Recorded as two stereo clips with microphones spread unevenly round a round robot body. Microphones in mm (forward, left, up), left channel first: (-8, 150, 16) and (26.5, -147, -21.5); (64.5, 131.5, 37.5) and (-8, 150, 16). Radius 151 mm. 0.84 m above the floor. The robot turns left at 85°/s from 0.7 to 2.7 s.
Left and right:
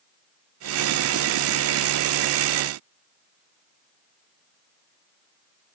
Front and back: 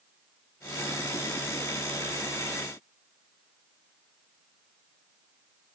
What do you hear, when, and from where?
Only background noise.